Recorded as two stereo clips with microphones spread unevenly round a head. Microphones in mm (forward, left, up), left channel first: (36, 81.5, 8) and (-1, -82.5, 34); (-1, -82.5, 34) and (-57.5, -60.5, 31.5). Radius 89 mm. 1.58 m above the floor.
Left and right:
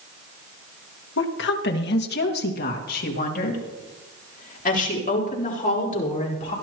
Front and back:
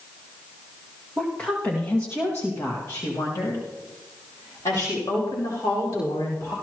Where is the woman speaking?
65° left, 1.7 m; by 6.5 s 30° left, 5 m.